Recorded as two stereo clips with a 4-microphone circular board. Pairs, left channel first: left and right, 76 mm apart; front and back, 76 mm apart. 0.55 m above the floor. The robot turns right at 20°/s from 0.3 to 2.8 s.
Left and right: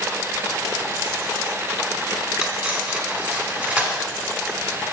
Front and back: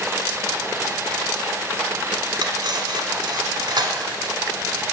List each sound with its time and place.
2.4 s cutlery clinking: 165° right, 1.3 m; by 4.3 s 155° right, 1.3 m